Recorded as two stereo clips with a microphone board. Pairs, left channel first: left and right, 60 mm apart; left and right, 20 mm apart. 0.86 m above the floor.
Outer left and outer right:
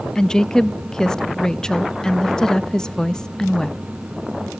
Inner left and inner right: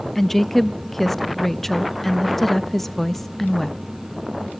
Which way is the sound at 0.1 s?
10° left (ahead or behind).